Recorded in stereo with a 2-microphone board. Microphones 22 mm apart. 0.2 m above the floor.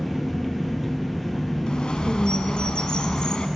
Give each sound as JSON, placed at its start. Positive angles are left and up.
{"t": 0.0, "sound": "an engine running", "side_deg": 0, "distance_m": 1.2}
{"t": 1.7, "sound": "a bird", "side_deg": 45, "distance_m": 0.6}